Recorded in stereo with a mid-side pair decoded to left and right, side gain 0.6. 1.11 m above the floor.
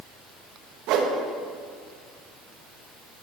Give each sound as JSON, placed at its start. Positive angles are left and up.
{"t": 0.9, "sound": "a whoosh", "azimuth_deg": -70, "distance_m": 1.0}